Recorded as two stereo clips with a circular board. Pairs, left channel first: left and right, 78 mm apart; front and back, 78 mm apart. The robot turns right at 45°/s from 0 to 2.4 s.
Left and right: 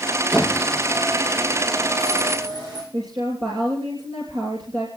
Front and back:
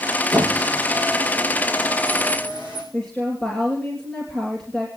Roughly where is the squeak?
Behind.